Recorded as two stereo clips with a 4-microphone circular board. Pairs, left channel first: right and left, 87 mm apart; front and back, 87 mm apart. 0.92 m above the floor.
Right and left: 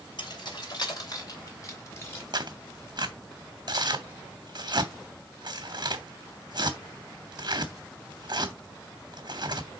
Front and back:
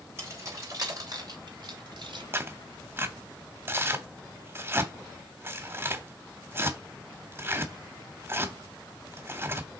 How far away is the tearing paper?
About 1.0 m.